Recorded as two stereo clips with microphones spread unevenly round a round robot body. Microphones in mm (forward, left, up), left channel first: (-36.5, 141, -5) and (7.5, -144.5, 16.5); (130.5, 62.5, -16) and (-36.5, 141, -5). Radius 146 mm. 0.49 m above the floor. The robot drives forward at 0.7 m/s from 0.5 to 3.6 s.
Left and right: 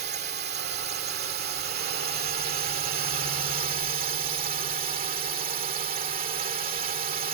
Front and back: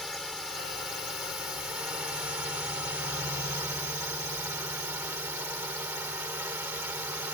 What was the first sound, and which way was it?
A drone, 115° right.